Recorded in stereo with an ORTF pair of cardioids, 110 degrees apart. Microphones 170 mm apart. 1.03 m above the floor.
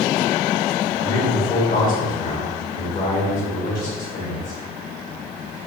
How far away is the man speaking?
About 2 m.